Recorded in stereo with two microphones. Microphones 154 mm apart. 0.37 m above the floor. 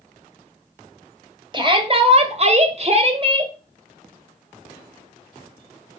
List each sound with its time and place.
1.5 s a shout: 30° right (ahead or behind), 1.9 m